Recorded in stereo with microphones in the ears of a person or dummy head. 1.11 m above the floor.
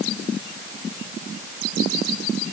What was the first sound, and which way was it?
Only background noise.